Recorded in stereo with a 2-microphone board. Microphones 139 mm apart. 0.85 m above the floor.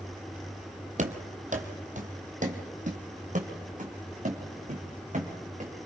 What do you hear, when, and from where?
1.0 s running footsteps: 60° right (ahead or behind), 1.7 m